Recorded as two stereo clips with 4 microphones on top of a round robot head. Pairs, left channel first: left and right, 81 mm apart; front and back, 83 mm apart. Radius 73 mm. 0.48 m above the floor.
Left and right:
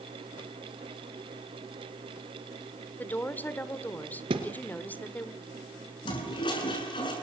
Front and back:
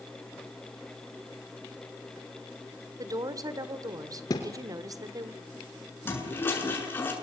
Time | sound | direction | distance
3.0 | a woman speaking | 155° left | 2 m
4.3 | a thud | 60° right | 2.5 m
6.0 | a toilet flushing | 60° left | 7.5 m